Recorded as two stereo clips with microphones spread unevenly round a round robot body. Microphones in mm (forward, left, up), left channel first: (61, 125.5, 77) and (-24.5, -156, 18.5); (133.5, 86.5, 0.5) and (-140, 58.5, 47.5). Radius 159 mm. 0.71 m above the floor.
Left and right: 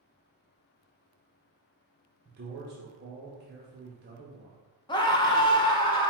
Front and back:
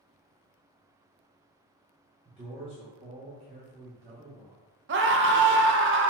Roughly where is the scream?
Behind left.